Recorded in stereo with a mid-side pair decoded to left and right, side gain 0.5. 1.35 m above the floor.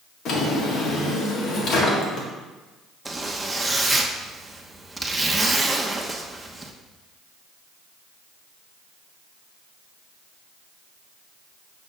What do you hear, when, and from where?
0.2 s a drawer: 65° left, 1.7 m
3.0 s a zipper: 10° right, 1.0 m